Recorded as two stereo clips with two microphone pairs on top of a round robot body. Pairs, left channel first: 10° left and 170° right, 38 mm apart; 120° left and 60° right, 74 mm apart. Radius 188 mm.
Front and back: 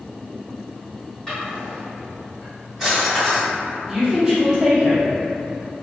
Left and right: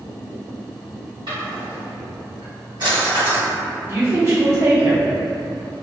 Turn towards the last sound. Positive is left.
turn(degrees=-95)